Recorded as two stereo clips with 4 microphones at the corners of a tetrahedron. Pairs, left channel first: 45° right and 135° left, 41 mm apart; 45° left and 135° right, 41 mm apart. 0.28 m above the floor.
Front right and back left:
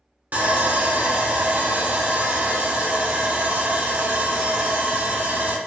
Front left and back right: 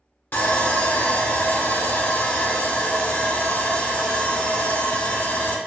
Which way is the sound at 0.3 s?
85° left.